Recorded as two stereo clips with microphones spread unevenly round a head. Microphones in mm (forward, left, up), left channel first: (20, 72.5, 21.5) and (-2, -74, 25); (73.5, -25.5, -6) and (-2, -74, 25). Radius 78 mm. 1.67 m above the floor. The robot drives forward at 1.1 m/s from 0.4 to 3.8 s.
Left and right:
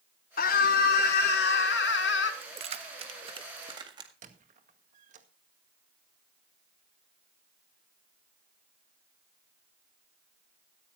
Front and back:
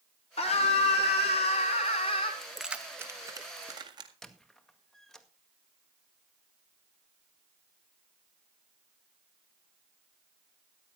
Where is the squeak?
60° right, 1.9 m.